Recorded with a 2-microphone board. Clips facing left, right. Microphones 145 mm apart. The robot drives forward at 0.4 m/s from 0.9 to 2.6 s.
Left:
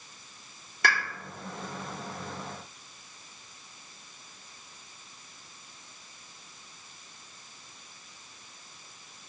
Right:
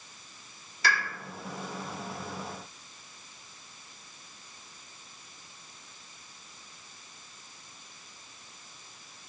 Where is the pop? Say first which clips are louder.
Left 1 dB; 55° left (ahead or behind), 1.1 m.